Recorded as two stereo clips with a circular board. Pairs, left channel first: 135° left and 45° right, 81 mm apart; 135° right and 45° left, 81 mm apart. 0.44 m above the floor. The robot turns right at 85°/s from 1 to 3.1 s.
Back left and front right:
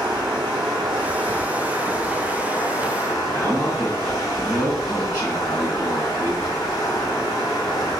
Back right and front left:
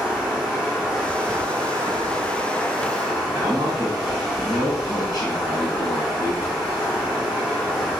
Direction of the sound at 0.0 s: 45° right.